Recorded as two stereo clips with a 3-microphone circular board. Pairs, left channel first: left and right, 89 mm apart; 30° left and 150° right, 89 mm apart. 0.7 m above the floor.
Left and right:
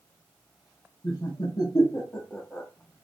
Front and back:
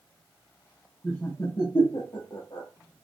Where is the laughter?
100° left, 1.1 m; by 2.7 s straight ahead, 1.1 m.